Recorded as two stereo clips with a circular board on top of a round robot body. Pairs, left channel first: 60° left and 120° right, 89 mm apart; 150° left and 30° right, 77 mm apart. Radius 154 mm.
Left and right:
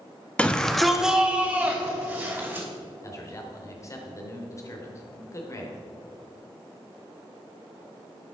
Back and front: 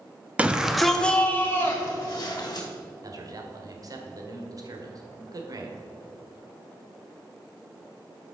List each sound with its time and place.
0.4 s a shout: 10° left, 1.1 m; by 2.7 s 175° right, 1.8 m
3.0 s a man speaking: 5° left, 1.8 m